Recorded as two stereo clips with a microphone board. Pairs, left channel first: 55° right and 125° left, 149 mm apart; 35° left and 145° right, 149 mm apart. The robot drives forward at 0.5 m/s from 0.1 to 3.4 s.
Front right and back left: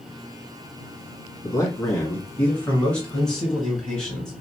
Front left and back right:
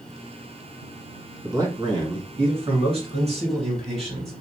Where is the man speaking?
95° right, 1.7 m; by 4.3 s 140° right, 2 m.